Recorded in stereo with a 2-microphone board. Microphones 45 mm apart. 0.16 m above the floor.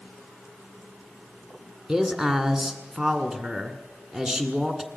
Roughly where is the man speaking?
Centre.